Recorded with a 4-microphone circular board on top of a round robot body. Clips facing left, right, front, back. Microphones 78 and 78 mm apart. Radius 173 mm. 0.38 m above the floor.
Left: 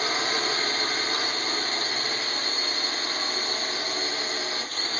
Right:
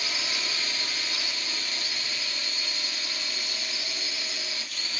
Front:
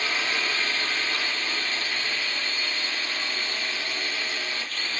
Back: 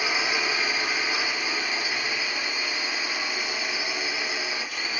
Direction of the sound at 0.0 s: 105° left.